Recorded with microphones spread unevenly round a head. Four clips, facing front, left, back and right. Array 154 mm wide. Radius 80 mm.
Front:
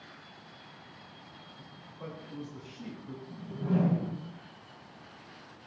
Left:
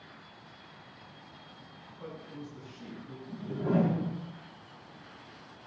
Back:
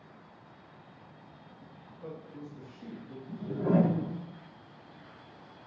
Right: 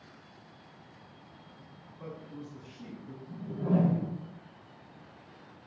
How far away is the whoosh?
About 2.5 m.